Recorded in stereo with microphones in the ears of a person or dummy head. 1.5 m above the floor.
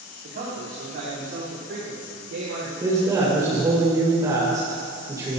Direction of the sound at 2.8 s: 15° right (ahead or behind).